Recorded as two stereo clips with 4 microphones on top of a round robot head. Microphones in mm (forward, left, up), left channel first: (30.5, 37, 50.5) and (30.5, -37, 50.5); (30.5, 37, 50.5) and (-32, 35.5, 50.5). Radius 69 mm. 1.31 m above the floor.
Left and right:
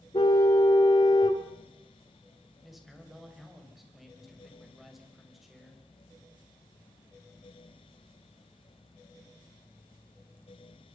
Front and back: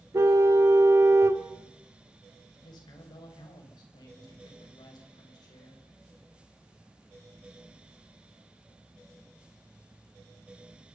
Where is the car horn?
135° left, 2 m.